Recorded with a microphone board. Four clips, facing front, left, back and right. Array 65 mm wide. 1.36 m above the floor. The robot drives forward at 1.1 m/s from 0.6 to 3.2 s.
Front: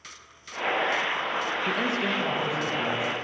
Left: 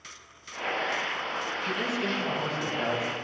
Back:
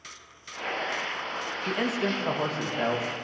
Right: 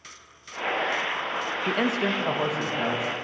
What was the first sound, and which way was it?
A man speaking, 90° right.